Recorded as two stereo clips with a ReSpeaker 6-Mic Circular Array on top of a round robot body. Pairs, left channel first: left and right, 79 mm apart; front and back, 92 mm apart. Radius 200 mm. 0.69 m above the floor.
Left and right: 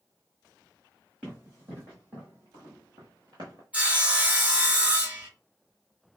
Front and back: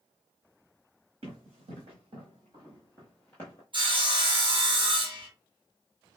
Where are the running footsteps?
165° right, 2.0 m; by 3.6 s 45° right, 0.8 m.